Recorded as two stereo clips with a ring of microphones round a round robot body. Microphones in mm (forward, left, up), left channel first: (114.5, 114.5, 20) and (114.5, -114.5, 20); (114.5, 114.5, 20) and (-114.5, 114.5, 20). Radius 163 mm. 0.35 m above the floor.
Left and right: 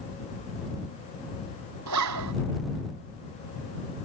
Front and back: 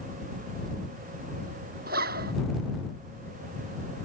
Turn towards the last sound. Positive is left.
turn(degrees=-115)